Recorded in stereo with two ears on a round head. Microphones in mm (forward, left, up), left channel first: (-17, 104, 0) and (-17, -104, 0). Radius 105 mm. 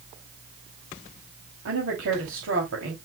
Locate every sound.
1.6 s a woman speaking: 60° right (ahead or behind), 2.5 m